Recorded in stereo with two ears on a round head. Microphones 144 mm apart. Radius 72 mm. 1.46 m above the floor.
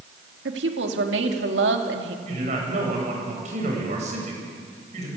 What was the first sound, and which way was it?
A woman speaking, 75° right (ahead or behind).